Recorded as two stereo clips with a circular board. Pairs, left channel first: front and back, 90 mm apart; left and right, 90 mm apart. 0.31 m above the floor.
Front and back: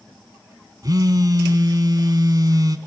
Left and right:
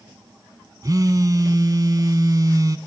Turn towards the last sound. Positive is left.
turn(degrees=-135)